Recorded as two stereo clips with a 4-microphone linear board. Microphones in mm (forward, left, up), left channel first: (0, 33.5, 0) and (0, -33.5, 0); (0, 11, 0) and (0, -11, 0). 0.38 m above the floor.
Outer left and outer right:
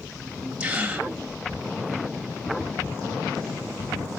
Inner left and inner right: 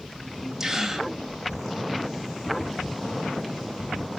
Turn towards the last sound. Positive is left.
turn(degrees=-15)  # may be behind; listen again after turning